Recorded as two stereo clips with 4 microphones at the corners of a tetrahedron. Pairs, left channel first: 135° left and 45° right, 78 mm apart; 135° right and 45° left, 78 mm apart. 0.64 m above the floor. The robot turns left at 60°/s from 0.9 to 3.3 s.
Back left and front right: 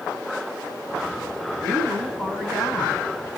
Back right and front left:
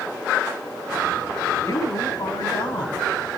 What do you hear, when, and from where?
1.6 s a woman speaking: 80° right, 4.5 m; by 3.1 s 175° right, 4.5 m